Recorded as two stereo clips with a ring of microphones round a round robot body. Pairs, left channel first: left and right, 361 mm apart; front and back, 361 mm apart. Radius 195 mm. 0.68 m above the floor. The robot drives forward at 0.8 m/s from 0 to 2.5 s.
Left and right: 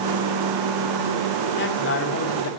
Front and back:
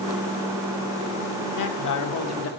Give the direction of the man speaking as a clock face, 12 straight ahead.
11 o'clock.